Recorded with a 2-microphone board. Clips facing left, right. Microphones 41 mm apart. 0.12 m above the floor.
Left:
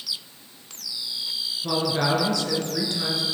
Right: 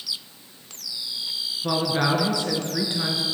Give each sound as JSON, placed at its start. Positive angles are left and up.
{"t": 1.6, "sound": "a woman speaking", "side_deg": -20, "distance_m": 1.9}